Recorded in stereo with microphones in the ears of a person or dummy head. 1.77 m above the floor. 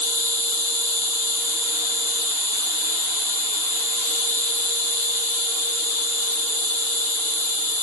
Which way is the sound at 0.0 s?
15° left (ahead or behind).